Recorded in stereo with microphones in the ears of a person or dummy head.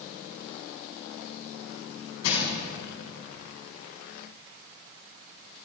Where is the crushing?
70° left (ahead or behind), 5.5 m.